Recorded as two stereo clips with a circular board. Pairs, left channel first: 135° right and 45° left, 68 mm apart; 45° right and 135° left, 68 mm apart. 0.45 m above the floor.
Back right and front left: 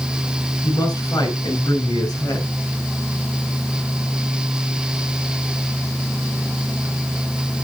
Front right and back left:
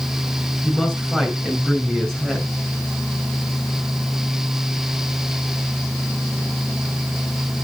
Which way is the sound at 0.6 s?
130° right.